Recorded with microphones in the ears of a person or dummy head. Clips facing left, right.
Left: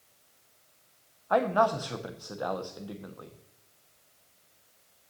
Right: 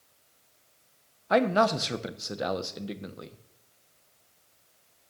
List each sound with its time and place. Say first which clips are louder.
1.3 s a man speaking: right 2 dB; 30° right (ahead or behind), 0.6 m